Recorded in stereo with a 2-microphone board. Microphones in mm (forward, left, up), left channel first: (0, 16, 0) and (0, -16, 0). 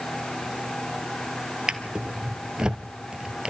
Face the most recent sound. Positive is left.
turn(degrees=-25)  # may be behind; listen again after turning